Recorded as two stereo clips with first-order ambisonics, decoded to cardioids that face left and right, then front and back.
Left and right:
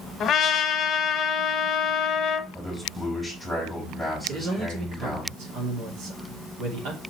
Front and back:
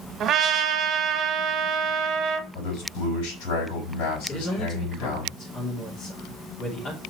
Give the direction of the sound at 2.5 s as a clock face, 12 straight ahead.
12 o'clock.